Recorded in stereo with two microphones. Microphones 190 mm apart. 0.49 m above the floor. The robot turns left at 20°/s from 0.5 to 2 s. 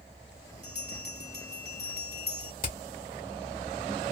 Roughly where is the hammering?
Left.